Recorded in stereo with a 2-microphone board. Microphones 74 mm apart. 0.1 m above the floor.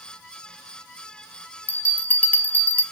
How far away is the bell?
About 1.0 m.